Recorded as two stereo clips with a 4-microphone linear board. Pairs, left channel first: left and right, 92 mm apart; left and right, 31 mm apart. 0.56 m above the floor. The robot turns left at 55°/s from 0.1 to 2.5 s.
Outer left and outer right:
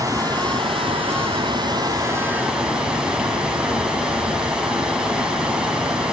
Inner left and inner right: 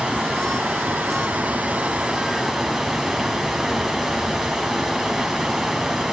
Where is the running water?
40° right, 4.5 m; by 6.1 s 170° right, 4.5 m.